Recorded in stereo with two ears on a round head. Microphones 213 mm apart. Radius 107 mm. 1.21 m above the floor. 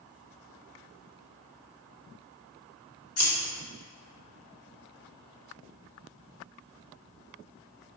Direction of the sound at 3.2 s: 70° left (ahead or behind).